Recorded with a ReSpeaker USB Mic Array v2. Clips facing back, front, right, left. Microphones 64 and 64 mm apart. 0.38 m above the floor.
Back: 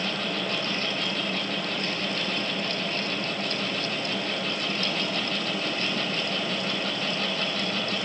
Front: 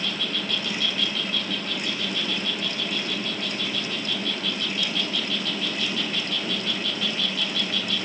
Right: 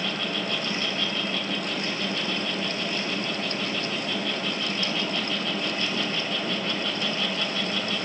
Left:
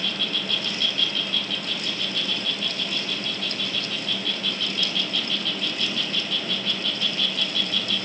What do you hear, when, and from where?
0.0 s an insect: 145° right, 2 m